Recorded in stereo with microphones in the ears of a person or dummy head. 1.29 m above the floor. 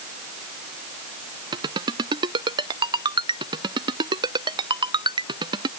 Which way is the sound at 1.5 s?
25° right (ahead or behind).